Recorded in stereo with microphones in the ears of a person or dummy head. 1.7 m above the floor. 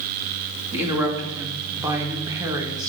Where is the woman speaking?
15° right (ahead or behind), 3 m; by 2.9 s 20° right (ahead or behind), 2.0 m.